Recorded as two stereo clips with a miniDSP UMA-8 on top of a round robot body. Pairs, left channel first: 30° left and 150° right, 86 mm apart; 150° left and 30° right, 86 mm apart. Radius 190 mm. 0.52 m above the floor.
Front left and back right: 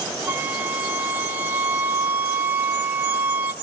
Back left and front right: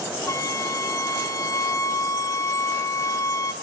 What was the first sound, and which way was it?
A flute, 155° left.